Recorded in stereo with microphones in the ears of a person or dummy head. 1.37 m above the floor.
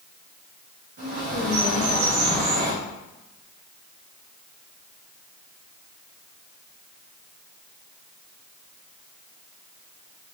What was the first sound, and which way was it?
A bird, 65° right (ahead or behind).